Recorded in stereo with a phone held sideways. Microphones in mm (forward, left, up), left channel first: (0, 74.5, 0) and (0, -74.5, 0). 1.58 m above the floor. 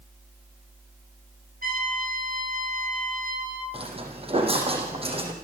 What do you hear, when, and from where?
1.6 s a trumpet: 70° right (ahead or behind), 10 m
3.7 s footsteps: 40° right (ahead or behind), 4.5 m